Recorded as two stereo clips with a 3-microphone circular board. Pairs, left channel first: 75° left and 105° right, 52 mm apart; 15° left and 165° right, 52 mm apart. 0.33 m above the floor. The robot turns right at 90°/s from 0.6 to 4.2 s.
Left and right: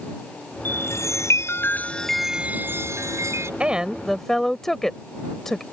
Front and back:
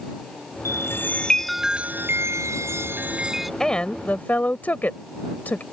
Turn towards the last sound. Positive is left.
turn(degrees=0)